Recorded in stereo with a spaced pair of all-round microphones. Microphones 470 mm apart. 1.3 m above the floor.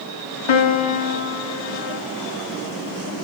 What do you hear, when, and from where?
0.5 s a piano: 70° left (ahead or behind), 0.5 m